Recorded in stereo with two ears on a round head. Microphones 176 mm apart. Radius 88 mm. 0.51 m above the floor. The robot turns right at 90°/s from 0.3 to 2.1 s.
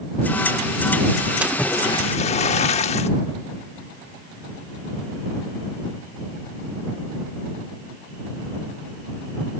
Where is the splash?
10° right; by 3.1 s 50° left.